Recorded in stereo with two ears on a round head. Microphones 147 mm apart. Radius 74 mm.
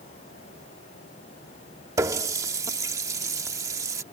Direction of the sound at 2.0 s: 20° right (ahead or behind).